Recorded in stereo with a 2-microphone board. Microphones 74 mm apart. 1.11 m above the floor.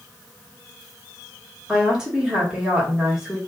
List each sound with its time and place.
1.7 s a woman speaking: 10° right (ahead or behind), 1.3 m